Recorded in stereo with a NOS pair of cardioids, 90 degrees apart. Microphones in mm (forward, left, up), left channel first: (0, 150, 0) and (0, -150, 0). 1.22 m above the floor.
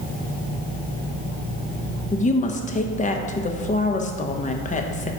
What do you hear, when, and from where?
2.1 s a woman speaking: 25° left, 0.9 m